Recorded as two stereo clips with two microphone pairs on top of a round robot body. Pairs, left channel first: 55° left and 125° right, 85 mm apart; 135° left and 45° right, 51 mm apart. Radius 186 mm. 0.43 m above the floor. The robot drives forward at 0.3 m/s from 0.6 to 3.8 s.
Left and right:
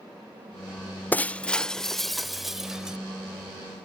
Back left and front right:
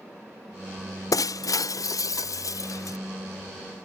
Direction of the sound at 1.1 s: 130° left.